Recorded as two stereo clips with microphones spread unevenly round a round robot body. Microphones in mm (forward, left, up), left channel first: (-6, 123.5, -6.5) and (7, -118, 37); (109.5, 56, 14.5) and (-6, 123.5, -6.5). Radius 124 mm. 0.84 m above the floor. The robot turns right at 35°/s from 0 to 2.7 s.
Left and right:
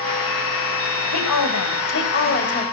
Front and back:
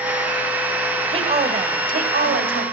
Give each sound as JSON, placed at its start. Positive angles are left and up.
{"t": 1.1, "sound": "a woman speaking", "azimuth_deg": 105, "distance_m": 4.0}